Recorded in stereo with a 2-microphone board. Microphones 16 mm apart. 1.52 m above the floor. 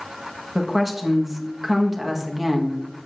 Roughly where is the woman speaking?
Centre.